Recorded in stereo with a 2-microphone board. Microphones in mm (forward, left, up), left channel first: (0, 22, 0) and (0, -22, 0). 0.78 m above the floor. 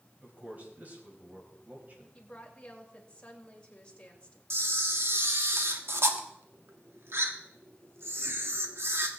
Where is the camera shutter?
65° right (ahead or behind), 1.3 m.